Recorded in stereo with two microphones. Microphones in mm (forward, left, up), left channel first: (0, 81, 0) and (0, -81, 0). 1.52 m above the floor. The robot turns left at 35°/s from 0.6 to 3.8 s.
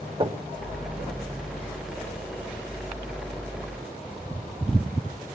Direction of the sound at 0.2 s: 35° right (ahead or behind).